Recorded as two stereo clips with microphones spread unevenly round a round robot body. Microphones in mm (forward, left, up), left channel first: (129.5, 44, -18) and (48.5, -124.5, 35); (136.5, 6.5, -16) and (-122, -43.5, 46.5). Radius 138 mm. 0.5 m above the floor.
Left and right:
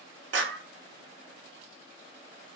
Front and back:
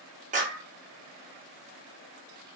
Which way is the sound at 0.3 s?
105° right.